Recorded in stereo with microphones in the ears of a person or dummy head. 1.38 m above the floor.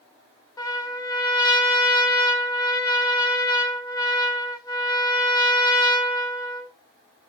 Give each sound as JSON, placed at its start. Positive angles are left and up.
{"t": 0.6, "sound": "a trumpet", "side_deg": 20, "distance_m": 0.5}